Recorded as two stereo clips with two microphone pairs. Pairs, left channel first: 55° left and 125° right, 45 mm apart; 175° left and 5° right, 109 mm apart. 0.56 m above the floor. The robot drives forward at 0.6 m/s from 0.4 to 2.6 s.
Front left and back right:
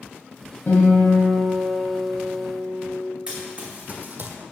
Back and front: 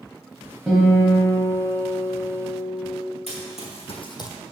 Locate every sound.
0.7 s a guitar: 85° left, 1.8 m; by 2.9 s 120° left, 2 m
3.3 s running footsteps: 175° left, 2.0 m; by 4.4 s 135° right, 0.8 m